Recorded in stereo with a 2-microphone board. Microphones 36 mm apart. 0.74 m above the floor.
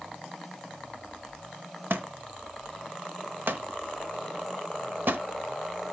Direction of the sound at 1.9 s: 70° right (ahead or behind).